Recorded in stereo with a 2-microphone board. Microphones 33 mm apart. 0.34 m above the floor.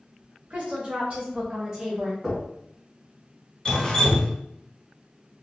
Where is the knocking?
5° right (ahead or behind), 1.8 m.